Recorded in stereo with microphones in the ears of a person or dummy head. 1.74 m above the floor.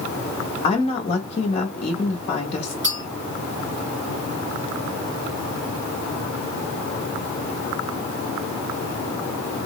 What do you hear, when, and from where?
0.6 s a woman speaking: 35° left (ahead or behind), 0.7 m
2.8 s a clink: 20° right (ahead or behind), 1.7 m